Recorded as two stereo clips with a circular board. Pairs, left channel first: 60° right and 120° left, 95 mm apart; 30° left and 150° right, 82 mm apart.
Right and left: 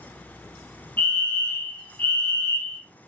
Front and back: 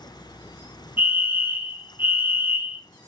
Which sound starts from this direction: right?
A fire alarm, at 1.0 s.